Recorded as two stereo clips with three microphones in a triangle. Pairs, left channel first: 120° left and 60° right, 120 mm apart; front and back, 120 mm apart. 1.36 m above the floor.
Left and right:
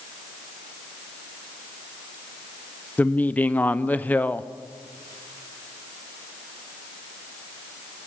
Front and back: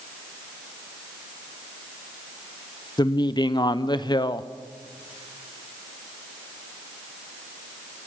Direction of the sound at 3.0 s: 45° left.